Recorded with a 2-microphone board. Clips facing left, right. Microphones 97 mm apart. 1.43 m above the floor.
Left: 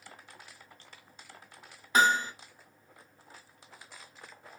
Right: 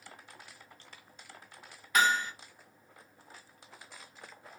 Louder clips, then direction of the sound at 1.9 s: Left 3 dB; 30° left (ahead or behind).